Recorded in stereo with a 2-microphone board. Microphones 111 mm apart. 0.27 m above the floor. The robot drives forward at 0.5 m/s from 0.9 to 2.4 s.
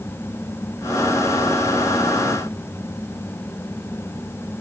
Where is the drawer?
I don't hear a drawer.